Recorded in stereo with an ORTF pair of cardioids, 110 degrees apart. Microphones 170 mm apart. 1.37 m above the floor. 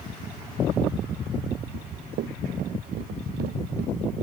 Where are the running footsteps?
65° right.